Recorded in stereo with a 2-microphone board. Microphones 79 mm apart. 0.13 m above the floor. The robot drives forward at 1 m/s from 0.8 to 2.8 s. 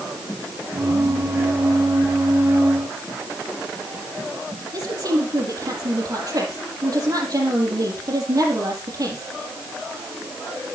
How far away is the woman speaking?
About 4.5 m.